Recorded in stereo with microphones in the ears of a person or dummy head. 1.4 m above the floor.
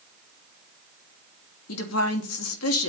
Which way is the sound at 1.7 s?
85° left.